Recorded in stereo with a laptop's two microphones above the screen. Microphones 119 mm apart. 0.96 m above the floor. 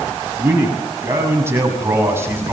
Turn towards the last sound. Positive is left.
turn(degrees=-20)  # may be behind; listen again after turning